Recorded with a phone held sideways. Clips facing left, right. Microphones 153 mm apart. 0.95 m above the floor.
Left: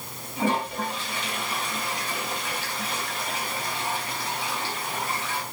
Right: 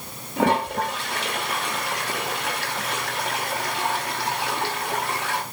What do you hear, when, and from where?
0.4 s a toilet flushing: 70° right (ahead or behind), 1.8 m